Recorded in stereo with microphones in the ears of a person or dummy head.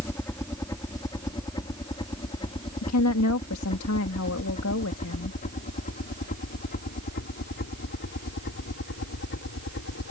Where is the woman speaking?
75° left (ahead or behind).